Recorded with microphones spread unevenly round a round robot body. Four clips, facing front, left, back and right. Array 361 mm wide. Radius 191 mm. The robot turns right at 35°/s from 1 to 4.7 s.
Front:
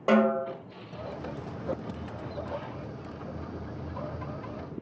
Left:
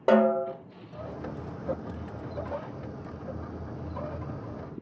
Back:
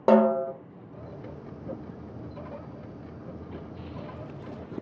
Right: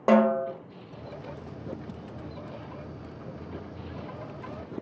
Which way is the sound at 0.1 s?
165° left.